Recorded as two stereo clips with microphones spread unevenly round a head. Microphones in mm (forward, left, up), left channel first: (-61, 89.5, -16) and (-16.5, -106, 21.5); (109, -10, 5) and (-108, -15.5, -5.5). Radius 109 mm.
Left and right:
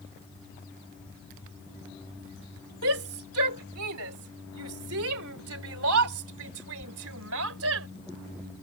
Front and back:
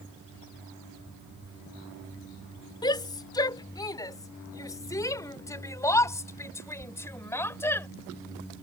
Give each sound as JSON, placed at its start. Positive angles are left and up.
{"t": 2.8, "sound": "a shout", "azimuth_deg": -70}